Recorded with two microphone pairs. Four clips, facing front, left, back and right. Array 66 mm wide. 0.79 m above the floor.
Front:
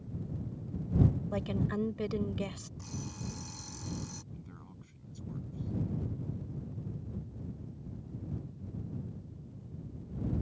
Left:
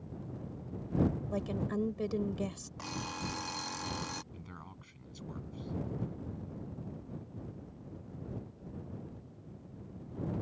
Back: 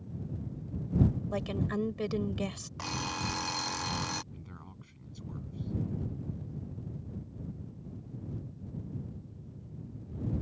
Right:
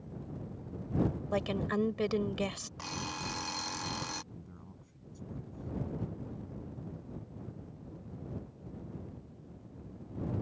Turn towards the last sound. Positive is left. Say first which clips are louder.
# left 2 dB, back 1 dB
turn(degrees=105)